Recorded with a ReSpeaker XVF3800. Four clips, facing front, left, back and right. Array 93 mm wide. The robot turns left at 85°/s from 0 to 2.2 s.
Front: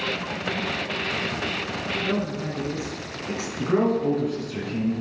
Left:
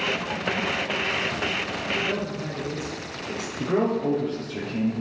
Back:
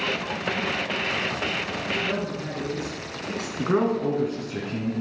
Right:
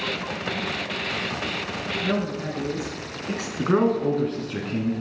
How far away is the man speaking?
About 2.5 m.